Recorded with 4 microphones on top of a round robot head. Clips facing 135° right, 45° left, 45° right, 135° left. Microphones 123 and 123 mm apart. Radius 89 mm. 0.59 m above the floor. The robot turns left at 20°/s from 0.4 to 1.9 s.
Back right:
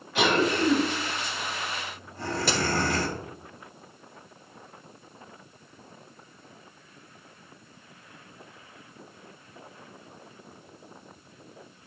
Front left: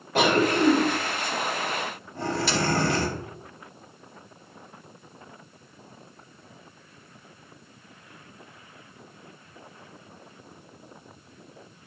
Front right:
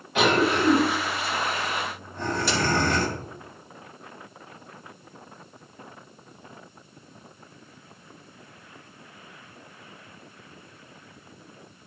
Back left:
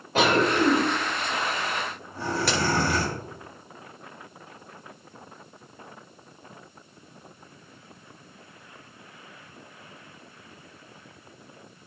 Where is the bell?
No bell in this recording.